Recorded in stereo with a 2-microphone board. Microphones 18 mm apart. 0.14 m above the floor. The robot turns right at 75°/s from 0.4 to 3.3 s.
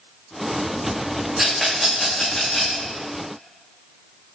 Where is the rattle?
20° right (ahead or behind), 3 m; by 2.8 s 85° left, 3 m.